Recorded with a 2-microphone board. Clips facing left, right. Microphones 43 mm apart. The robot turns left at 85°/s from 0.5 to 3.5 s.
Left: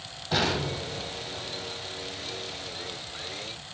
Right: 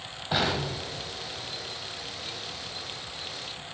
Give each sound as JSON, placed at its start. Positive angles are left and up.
{"t": 0.3, "sound": "an explosion", "side_deg": -15, "distance_m": 1.6}